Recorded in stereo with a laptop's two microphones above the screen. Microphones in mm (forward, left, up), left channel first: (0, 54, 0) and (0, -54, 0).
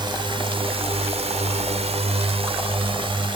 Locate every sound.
0.0 s a drone: 45° right (ahead or behind)